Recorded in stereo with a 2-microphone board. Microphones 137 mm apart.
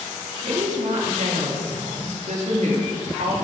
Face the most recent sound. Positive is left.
turn(degrees=-60)  # may be behind; listen again after turning